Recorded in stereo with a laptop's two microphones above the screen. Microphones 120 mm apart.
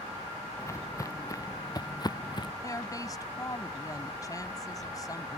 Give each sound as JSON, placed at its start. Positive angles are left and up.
{"t": 0.6, "sound": "footsteps", "side_deg": 25}
{"t": 2.6, "sound": "a woman speaking", "side_deg": 30}